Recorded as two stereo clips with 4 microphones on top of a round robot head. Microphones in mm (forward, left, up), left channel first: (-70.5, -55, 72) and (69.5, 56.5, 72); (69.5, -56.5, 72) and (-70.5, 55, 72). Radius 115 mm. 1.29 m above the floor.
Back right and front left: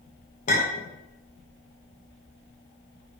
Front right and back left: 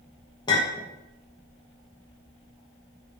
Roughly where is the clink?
Right.